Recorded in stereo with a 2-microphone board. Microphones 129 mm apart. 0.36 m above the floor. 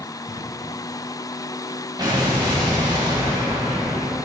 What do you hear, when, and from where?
0.3 s breathing: 25° left (ahead or behind), 4 m
2.0 s an explosion: 35° right (ahead or behind), 2 m